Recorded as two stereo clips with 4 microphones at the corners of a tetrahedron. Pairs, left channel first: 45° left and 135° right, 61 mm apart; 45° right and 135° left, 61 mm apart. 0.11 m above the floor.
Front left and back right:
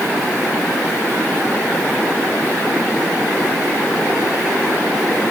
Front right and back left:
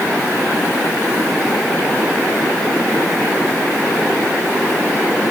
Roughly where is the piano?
No piano in this recording.